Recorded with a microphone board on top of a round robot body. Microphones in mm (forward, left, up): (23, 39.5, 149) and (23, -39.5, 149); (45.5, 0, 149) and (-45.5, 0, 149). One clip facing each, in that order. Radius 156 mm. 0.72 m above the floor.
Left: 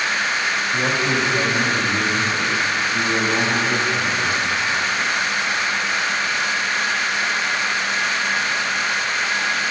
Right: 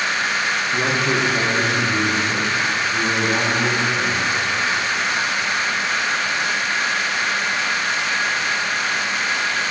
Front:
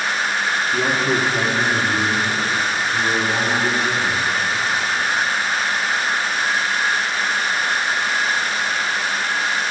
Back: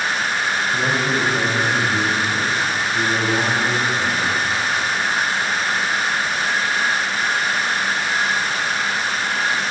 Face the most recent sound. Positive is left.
turn(degrees=-75)